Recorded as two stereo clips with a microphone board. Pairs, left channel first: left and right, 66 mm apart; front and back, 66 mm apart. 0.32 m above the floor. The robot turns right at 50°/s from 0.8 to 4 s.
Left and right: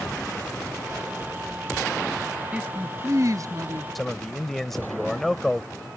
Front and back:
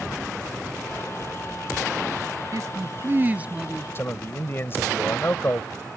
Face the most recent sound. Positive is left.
turn(degrees=5)